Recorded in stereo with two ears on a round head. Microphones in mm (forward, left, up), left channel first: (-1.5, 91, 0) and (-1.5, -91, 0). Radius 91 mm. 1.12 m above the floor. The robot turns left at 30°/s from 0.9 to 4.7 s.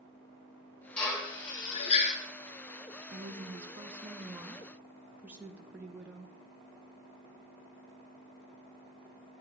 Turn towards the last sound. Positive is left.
turn(degrees=-170)